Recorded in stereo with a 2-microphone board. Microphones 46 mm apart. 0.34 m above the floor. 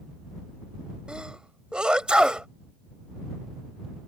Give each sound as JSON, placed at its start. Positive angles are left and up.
{"t": 1.1, "sound": "a sneeze", "side_deg": -20}